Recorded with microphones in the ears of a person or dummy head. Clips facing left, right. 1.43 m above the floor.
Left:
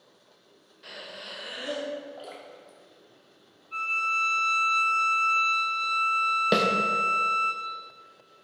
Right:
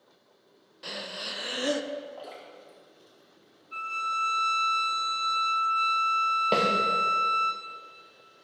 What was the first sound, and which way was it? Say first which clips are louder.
Breathing: right 4 dB; 45° right (ahead or behind).